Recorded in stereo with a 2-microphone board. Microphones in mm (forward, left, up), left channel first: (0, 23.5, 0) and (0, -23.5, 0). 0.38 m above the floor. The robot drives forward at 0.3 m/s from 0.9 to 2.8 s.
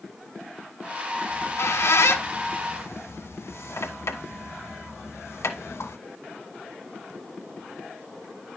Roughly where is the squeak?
Left.